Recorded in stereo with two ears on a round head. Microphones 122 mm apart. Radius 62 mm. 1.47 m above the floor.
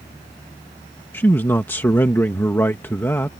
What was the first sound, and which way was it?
A man speaking, 15° left (ahead or behind).